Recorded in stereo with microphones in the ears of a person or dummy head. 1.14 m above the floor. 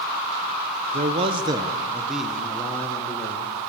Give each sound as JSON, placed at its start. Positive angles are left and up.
{"t": 0.9, "sound": "a man speaking", "side_deg": -30, "distance_m": 0.8}